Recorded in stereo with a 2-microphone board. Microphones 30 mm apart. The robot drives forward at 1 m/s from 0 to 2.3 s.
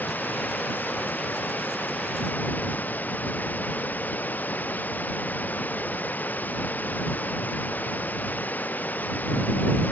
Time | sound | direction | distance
0.0 | running water | 85° left | ?